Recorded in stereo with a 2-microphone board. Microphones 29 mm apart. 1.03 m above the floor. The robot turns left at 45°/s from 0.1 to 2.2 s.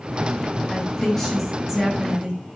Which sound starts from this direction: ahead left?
A woman speaking, at 0.7 s.